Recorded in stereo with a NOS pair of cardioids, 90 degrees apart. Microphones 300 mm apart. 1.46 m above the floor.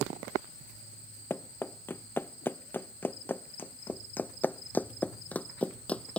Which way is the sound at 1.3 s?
10° left.